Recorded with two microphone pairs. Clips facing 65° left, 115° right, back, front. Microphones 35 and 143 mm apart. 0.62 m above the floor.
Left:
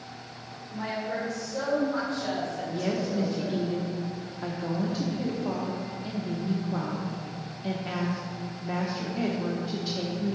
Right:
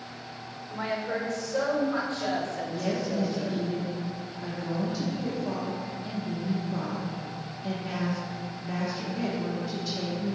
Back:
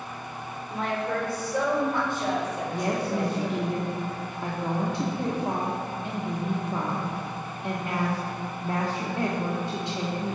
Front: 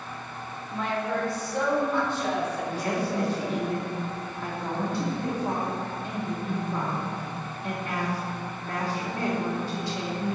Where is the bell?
No bell in this recording.